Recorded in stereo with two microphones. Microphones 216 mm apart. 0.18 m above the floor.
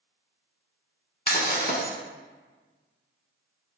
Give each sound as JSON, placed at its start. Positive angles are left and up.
{"t": 1.3, "sound": "breaking glass", "side_deg": 45, "distance_m": 0.7}